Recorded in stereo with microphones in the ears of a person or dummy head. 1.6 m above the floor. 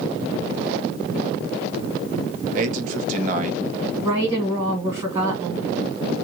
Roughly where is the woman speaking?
Right.